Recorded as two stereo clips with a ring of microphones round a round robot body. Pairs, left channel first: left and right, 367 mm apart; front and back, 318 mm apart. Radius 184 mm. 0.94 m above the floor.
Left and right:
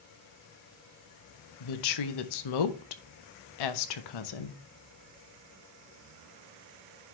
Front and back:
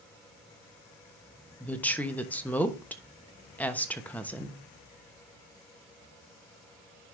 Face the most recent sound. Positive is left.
turn(degrees=85)